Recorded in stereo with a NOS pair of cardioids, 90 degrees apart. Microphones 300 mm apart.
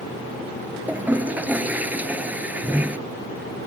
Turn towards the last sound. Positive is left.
turn(degrees=-5)